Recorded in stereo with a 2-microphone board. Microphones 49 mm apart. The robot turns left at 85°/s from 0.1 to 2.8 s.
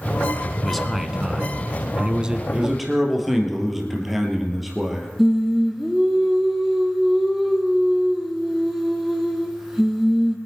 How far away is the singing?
About 2 m.